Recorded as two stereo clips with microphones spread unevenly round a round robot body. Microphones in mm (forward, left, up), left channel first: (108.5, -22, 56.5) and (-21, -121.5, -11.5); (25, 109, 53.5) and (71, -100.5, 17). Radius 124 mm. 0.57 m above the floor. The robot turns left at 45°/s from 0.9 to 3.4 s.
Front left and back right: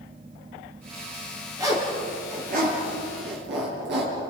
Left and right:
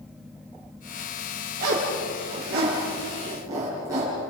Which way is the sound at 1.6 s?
75° right.